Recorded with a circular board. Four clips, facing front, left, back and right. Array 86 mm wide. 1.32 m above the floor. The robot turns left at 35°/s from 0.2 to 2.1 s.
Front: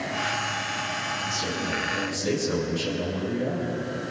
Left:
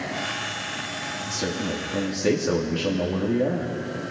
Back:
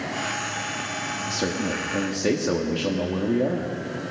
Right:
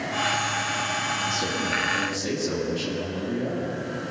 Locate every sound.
1.3 s a man speaking: 175° left, 3 m; by 3.8 s 150° left, 3 m